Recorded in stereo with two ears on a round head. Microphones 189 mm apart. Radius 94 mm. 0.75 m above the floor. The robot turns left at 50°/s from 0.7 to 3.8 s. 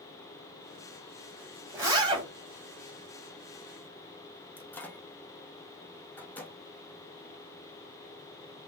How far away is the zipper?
About 1.8 m.